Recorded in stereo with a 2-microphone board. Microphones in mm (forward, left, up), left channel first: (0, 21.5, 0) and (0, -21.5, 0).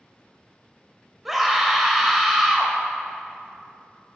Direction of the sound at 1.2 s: 5° right (ahead or behind).